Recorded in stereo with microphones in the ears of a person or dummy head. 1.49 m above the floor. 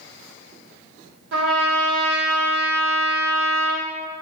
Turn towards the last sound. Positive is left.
turn(degrees=-70)  # may be behind; listen again after turning